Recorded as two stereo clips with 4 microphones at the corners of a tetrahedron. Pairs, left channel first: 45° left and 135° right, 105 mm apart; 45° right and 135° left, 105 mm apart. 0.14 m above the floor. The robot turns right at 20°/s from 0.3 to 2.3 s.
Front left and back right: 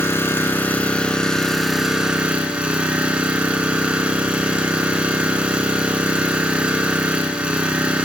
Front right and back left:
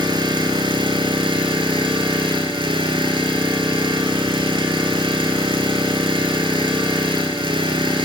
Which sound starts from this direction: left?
An engine running, at 0.0 s.